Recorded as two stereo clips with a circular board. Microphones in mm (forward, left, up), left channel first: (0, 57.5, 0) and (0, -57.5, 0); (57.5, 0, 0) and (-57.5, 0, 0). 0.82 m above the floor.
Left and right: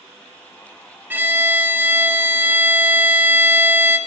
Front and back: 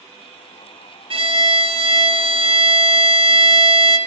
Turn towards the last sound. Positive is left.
turn(degrees=-160)